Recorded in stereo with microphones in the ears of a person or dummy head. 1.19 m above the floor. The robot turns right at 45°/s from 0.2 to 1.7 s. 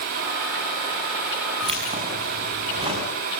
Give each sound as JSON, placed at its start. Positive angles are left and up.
{"t": 1.6, "sound": "keys jangling", "side_deg": -25, "distance_m": 6.0}